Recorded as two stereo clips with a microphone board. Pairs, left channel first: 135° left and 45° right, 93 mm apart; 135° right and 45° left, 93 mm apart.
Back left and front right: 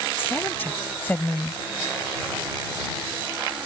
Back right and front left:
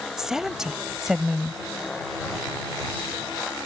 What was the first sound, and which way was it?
A woman speaking, 120° left.